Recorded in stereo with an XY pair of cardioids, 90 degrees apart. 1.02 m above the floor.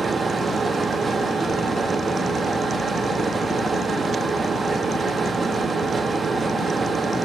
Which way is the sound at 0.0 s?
40° right.